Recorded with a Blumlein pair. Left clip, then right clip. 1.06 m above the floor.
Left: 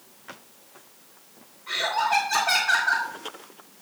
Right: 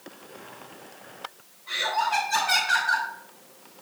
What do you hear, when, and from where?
1.7 s laughter: 30° left, 2 m